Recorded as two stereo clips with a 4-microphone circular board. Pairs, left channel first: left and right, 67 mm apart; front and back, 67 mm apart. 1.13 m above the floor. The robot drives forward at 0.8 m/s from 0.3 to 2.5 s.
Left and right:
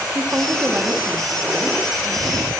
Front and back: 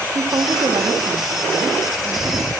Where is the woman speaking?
150° right, 1.0 m; by 2.5 s 170° right, 2.5 m.